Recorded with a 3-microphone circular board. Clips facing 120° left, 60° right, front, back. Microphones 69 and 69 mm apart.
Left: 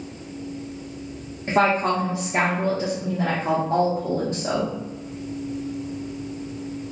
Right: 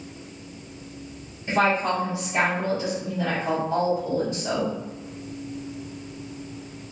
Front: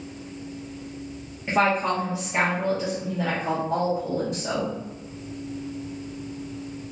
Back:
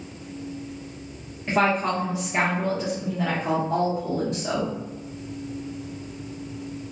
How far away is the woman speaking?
About 0.8 m.